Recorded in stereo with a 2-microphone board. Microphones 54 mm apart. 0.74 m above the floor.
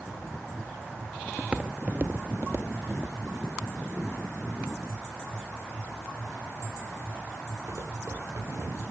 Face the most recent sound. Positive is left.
turn(degrees=-65)  # may be behind; listen again after turning